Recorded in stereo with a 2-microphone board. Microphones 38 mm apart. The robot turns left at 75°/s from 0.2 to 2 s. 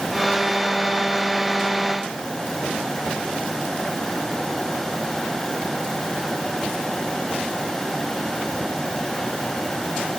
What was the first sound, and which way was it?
Only background noise.